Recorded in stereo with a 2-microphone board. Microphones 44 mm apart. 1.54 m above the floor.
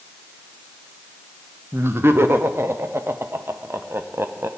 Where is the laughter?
65° right (ahead or behind), 0.8 m.